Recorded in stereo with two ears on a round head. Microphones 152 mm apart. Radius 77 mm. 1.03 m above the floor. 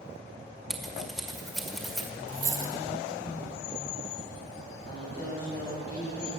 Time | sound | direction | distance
0.7 | scissors | centre (ahead or behind) | 1.6 m
2.3 | a dropped coin | 20° right (ahead or behind) | 1.7 m
4.9 | a woman speaking | 35° left (ahead or behind) | 7 m